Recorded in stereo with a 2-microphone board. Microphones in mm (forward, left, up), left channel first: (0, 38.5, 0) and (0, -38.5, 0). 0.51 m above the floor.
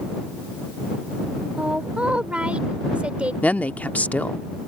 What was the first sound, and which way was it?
A woman speaking, 15° right (ahead or behind).